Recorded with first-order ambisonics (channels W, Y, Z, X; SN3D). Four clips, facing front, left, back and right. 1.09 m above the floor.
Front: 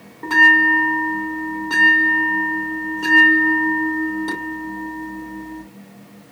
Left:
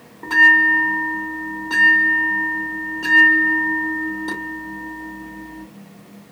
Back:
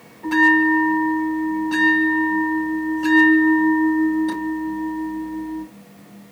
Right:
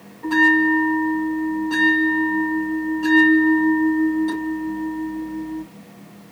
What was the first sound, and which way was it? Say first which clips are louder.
A bell: left 4 dB, front 3 dB; 20° left.